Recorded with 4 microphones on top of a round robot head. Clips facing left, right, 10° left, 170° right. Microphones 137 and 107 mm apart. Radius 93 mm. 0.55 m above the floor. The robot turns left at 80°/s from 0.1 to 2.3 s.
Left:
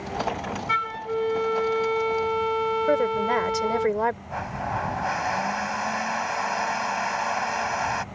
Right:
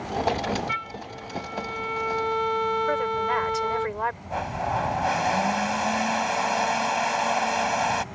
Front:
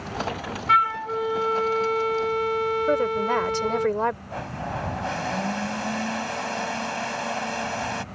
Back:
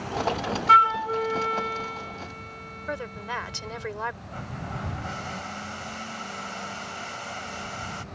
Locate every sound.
0.7 s a flute: 140° left; by 3.9 s 10° left
2.9 s a woman speaking: 45° left
4.3 s a blender: 25° right